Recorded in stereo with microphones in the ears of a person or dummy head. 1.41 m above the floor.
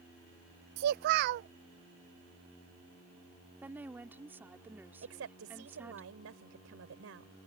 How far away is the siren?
I don't hear a siren.